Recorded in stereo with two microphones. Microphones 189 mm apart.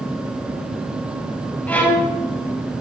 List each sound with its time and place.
1.7 s a violin: 10° left (ahead or behind), 1.4 m